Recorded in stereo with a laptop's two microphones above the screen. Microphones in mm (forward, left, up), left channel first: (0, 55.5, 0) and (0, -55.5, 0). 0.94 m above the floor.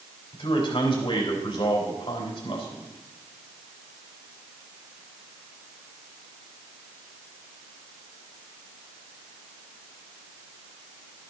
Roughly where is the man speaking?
Left.